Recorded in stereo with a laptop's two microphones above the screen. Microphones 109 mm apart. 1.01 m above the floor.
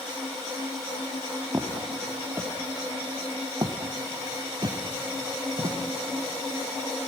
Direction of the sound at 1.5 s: 15° right (ahead or behind).